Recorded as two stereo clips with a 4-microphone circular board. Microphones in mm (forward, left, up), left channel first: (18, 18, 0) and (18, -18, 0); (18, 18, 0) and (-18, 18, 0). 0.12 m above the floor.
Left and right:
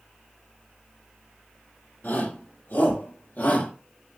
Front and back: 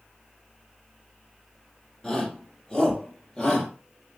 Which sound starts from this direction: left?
A shout, at 2.0 s.